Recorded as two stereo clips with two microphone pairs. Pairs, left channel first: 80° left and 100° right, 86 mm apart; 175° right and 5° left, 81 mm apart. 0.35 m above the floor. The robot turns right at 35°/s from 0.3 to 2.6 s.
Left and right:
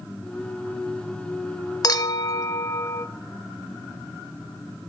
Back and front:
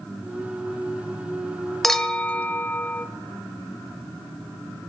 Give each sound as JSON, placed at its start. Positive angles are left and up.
{"t": 1.8, "sound": "a clink", "azimuth_deg": 100, "distance_m": 0.6}